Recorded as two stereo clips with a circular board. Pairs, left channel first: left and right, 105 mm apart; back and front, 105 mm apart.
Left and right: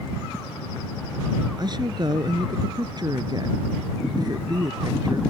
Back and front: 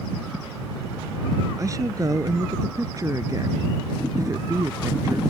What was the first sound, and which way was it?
A woman speaking, 50° right.